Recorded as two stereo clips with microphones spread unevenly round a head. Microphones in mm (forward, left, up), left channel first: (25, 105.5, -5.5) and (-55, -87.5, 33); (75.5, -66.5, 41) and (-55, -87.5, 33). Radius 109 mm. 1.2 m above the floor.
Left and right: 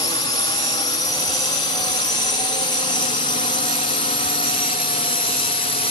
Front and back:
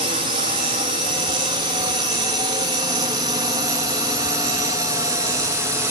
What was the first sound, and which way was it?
A drone, 135° left.